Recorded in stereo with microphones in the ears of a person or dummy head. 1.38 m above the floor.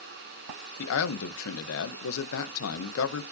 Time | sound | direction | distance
0.8 | a man speaking | 80° left | 1.0 m